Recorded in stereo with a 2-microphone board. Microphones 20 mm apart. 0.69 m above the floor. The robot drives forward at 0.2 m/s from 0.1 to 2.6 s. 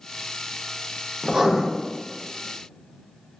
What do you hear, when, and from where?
1.2 s writing: 30° right (ahead or behind), 0.6 m